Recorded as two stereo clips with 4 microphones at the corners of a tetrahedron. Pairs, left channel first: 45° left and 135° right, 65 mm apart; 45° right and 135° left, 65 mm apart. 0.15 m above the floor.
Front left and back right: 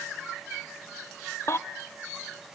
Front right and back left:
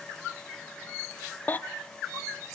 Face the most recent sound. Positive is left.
turn(degrees=10)